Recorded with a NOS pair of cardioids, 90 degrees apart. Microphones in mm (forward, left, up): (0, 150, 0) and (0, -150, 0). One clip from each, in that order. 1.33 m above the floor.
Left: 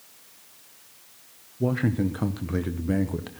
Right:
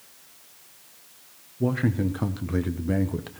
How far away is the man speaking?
About 0.7 m.